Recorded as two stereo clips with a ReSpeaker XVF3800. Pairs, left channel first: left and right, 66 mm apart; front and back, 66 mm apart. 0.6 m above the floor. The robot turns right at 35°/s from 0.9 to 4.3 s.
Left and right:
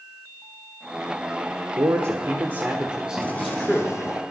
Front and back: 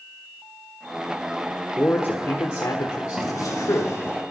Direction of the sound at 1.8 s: 60° right.